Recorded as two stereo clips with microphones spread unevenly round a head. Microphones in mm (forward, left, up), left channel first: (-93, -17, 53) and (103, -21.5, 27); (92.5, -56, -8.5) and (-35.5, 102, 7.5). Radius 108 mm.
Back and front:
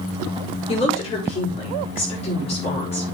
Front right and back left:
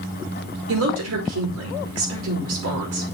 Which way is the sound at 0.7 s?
115° left.